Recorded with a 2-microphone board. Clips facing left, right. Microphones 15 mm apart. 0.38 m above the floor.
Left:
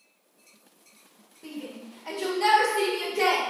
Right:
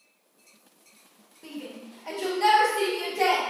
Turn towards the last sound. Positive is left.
turn(degrees=35)  # may be behind; listen again after turning